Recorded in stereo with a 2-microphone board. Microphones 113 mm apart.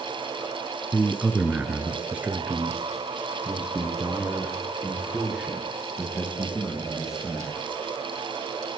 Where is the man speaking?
15° right (ahead or behind), 1.2 m; by 7.5 s 5° right (ahead or behind), 5 m.